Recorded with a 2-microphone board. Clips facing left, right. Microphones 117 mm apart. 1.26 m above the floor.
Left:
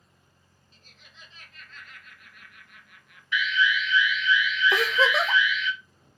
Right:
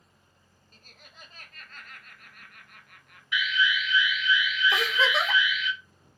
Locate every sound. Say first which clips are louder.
0.7 s laughter: right 3 dB; 55° right (ahead or behind), 0.7 m
3.3 s an alarm: left 2 dB; 10° right (ahead or behind), 1.0 m
4.7 s a giggle: left 4 dB; 40° left (ahead or behind), 0.7 m